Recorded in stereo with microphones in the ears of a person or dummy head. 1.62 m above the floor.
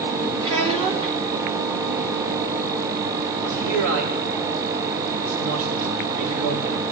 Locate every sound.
0.4 s a child speaking: 30° right (ahead or behind), 2.5 m
3.4 s a man speaking: 85° right, 5 m